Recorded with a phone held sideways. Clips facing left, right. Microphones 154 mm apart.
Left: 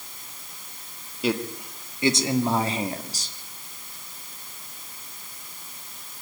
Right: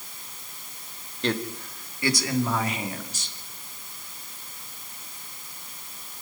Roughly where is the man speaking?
Centre.